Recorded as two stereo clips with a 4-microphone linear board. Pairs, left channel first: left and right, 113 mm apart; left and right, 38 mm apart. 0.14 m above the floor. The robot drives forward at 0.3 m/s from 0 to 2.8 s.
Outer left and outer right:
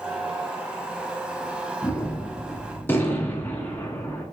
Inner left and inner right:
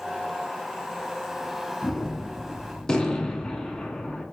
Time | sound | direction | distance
1.8 | a gunshot | 20° left (ahead or behind) | 1.0 m